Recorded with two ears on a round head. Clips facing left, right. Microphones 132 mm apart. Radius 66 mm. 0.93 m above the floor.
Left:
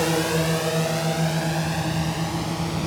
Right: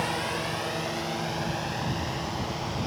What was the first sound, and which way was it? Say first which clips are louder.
A drone: left 8 dB; 55° left (ahead or behind).